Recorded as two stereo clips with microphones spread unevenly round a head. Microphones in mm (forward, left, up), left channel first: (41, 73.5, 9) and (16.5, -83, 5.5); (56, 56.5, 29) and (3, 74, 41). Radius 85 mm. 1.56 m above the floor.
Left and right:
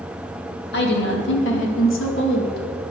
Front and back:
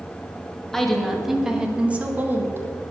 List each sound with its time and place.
0.7 s a woman speaking: 70° left, 2.5 m; by 2.7 s 125° left, 2.0 m